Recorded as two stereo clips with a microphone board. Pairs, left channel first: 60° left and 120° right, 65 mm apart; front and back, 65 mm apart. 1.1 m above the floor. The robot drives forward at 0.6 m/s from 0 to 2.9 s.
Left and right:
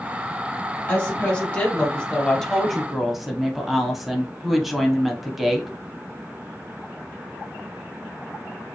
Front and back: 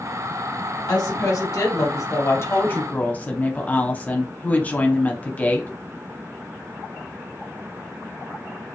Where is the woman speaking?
5° right, 1.6 m; by 5.7 s 35° right, 0.7 m.